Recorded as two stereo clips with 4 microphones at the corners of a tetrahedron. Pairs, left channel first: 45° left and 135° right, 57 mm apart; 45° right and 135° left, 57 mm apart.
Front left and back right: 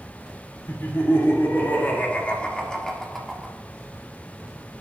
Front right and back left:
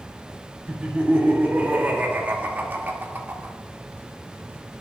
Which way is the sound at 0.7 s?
70° left.